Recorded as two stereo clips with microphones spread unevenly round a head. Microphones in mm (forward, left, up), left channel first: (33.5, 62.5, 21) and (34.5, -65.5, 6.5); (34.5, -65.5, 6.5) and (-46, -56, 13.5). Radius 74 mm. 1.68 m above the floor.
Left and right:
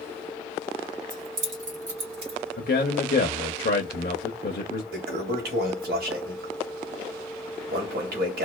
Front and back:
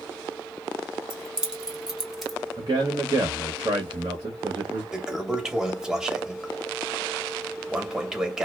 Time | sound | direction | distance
1.1 | keys jangling | 115° right | 1.4 m
2.6 | a man speaking | 110° left | 0.7 m
4.9 | a toilet flushing | 105° right | 0.9 m